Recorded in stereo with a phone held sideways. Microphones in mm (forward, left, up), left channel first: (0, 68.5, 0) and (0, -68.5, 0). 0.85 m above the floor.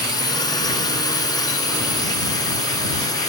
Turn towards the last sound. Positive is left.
turn(degrees=30)  # may be behind; listen again after turning